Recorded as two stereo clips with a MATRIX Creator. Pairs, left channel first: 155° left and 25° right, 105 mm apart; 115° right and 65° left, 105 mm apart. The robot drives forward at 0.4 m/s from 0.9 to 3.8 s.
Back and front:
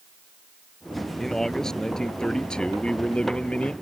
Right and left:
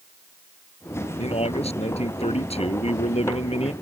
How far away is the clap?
I don't hear a clap.